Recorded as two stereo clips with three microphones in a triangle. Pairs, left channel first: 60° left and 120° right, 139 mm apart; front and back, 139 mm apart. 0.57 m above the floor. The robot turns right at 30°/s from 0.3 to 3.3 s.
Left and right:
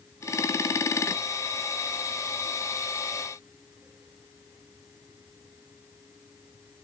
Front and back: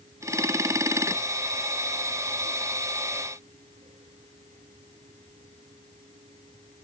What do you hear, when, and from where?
Only background noise.